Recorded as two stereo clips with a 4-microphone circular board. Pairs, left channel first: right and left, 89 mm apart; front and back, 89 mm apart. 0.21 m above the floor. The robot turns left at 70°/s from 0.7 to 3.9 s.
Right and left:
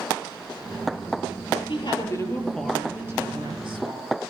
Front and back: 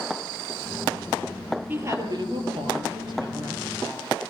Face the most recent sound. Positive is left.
turn(degrees=95)